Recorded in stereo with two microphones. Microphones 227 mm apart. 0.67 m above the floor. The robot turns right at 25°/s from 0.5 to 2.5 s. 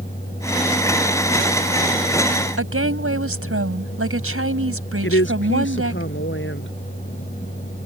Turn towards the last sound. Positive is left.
turn(degrees=60)  # may be behind; listen again after turning